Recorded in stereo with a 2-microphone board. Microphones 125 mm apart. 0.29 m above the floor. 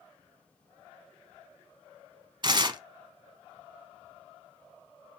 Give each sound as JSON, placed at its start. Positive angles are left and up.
{"t": 2.4, "sound": "tearing paper", "side_deg": -35, "distance_m": 0.9}